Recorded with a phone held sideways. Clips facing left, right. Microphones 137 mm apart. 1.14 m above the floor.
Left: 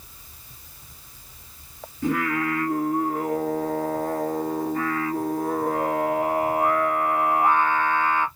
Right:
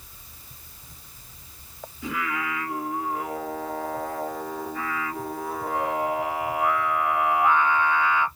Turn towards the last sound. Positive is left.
turn(degrees=50)  # may be behind; listen again after turning